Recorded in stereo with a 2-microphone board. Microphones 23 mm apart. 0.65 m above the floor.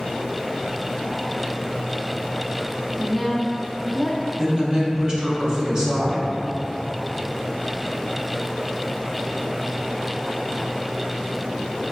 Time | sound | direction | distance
3.0 | a woman speaking | centre (ahead or behind) | 0.6 m
4.4 | a woman speaking | 30° right (ahead or behind) | 0.8 m